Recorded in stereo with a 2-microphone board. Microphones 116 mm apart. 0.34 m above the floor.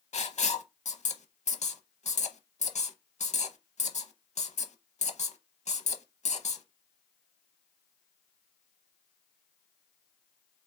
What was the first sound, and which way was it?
Writing, 75° left (ahead or behind).